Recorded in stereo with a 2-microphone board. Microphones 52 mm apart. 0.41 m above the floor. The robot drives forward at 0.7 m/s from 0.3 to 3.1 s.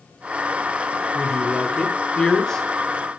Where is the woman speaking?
10° left (ahead or behind), 1.1 m.